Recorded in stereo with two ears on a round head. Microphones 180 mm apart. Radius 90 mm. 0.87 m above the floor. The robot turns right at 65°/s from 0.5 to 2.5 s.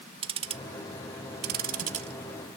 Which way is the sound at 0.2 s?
30° right (ahead or behind).